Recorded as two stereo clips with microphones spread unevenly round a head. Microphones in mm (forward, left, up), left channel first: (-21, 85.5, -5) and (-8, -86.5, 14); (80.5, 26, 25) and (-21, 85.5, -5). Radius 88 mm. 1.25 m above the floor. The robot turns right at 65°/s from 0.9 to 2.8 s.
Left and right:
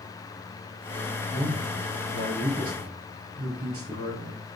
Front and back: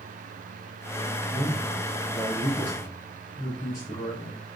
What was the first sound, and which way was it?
A man speaking, 170° right.